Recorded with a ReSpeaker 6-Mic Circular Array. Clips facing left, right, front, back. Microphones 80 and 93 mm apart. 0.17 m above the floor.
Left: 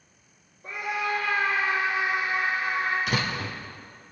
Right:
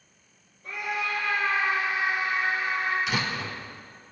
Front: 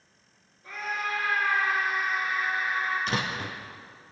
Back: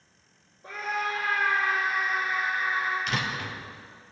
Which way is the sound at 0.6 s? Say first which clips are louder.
Left 2 dB, back 2 dB; 130° left.